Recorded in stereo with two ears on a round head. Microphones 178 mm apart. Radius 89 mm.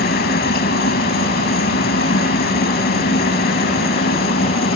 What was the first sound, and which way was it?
A helicopter, 50° left (ahead or behind).